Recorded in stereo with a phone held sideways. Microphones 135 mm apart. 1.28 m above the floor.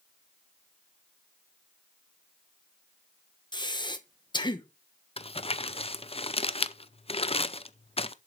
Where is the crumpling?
45° left (ahead or behind), 0.6 m.